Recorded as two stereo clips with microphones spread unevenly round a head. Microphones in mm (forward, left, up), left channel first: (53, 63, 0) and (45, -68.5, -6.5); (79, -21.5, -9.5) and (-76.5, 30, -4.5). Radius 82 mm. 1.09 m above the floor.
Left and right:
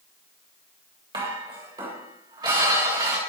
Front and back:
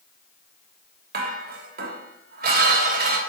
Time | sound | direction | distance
1.1 | dishes clattering | 160° right | 3 m